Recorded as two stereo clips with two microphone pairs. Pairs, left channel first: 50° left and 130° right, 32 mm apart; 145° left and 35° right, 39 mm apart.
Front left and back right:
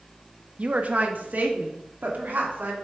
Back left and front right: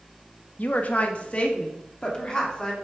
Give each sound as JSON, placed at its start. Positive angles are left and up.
{"t": 0.6, "sound": "a woman speaking", "azimuth_deg": 180, "distance_m": 0.7}